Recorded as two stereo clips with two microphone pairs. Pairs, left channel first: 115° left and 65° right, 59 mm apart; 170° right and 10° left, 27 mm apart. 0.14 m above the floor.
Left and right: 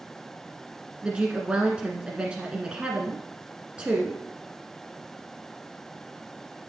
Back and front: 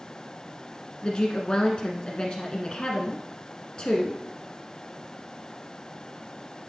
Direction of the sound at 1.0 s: 130° right.